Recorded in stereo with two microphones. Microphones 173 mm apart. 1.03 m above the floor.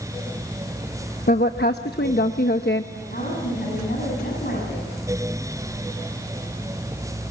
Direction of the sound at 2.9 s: 60° left (ahead or behind).